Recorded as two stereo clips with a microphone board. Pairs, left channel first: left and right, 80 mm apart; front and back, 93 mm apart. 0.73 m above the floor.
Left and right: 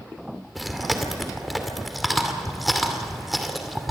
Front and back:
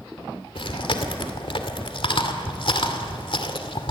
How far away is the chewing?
About 2.5 m.